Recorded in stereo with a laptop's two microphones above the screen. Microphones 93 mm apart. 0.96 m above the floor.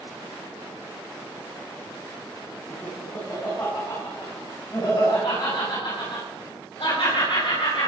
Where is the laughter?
25° left (ahead or behind), 6 m; by 7.9 s 60° left (ahead or behind), 5 m.